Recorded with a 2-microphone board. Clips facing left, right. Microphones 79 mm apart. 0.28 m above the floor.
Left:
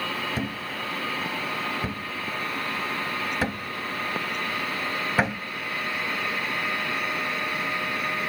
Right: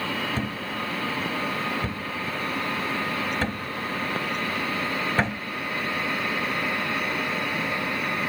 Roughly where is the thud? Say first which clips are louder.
Right 1 dB; centre.